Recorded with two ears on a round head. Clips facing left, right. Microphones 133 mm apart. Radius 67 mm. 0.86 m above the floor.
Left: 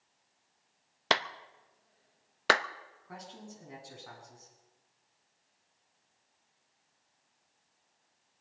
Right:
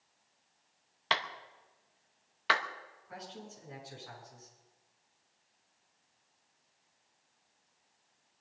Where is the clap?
50° left (ahead or behind), 0.6 m.